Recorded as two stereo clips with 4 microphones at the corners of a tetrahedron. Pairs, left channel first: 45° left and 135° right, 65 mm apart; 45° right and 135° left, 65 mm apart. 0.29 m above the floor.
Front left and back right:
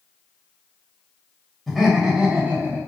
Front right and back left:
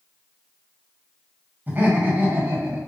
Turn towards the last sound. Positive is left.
turn(degrees=175)